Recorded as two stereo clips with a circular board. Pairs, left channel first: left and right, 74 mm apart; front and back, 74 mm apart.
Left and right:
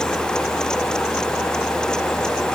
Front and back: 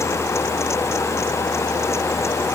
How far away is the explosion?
I don't hear an explosion.